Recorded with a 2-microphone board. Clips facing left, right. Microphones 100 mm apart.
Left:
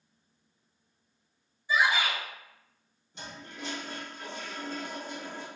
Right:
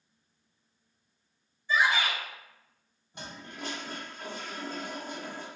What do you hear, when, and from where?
1.7 s a shout: 15° left (ahead or behind), 0.7 m
3.1 s a toilet flushing: 50° right (ahead or behind), 1.4 m